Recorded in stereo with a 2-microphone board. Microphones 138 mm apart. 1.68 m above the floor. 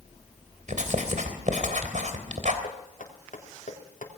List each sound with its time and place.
0.7 s writing: 65° right (ahead or behind), 3 m
2.6 s knocking: 70° left (ahead or behind), 3 m